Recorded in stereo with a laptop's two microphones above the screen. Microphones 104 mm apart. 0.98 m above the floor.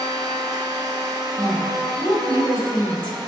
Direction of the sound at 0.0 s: 45° right (ahead or behind).